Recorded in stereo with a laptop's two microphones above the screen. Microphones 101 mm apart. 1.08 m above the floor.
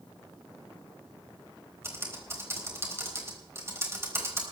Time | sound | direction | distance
1.8 | typing on a keyboard | 25° right (ahead or behind) | 3.5 m